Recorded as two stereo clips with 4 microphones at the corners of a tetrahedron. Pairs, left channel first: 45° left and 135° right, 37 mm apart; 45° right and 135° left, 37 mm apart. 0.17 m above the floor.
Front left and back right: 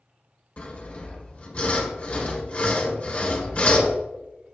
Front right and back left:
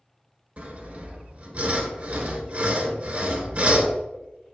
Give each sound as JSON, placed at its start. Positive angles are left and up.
{"t": 0.6, "sound": "sawing", "azimuth_deg": 100, "distance_m": 1.6}